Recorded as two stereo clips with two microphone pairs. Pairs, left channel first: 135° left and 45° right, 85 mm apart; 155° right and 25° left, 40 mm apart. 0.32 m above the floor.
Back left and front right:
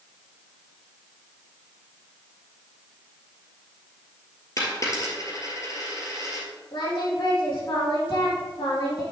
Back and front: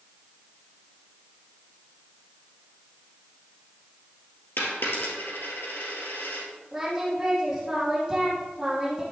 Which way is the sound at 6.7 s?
110° left.